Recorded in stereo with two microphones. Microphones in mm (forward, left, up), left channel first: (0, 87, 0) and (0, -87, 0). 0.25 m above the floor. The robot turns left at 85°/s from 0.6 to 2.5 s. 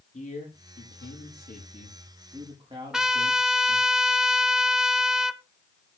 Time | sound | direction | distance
0.1 | a man speaking | 135° left | 7.5 m
2.9 | a trumpet | 5° right (ahead or behind) | 0.9 m